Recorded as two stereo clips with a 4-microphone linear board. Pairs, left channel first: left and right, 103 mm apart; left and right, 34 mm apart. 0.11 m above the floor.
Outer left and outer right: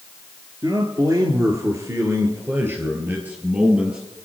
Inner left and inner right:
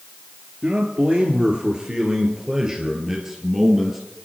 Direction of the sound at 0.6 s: 40° right (ahead or behind).